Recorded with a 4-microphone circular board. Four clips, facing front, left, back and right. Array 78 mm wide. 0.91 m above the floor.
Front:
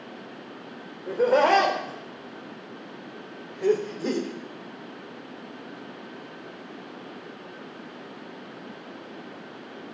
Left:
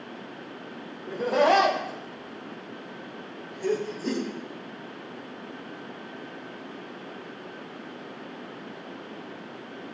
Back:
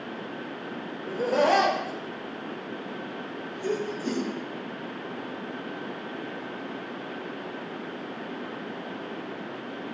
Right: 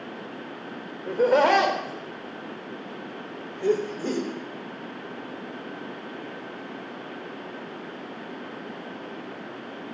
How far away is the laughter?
About 3 m.